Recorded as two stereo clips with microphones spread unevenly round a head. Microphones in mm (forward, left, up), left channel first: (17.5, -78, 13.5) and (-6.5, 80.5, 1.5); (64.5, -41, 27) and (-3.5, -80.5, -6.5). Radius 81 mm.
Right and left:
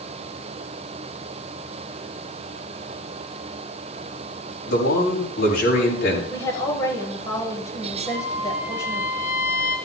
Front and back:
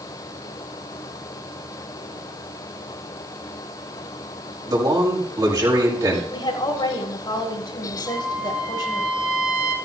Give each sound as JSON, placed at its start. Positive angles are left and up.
{"t": 4.7, "sound": "a man speaking", "azimuth_deg": -110, "distance_m": 7.5}
{"t": 6.3, "sound": "a woman speaking", "azimuth_deg": -10, "distance_m": 5.0}
{"t": 8.1, "sound": "a trumpet", "azimuth_deg": -75, "distance_m": 8.0}